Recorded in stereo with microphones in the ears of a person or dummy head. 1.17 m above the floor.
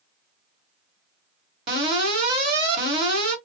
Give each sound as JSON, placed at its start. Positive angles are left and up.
{"t": 1.7, "sound": "an alarm", "side_deg": -30, "distance_m": 1.5}